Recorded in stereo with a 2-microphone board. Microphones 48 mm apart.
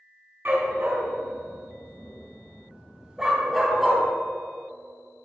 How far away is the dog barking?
About 3.5 m.